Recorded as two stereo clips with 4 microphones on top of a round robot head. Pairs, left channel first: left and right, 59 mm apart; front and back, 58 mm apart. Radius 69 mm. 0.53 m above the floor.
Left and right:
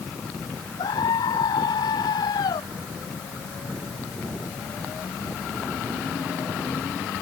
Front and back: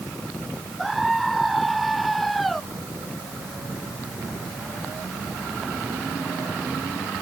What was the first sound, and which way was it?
A scream, 90° left.